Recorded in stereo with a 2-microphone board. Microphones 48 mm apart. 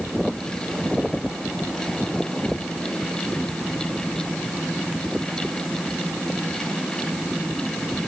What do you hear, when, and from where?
Only background noise.